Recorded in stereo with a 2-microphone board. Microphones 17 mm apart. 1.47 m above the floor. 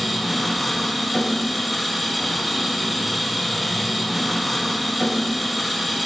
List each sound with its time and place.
0.0 s an engine running: 10° right (ahead or behind), 5.5 m